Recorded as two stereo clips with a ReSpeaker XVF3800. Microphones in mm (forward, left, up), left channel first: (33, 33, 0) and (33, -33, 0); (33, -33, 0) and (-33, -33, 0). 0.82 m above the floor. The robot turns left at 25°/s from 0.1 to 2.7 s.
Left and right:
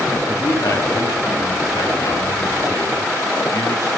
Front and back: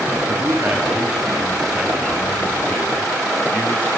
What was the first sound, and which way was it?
A man speaking, 125° left.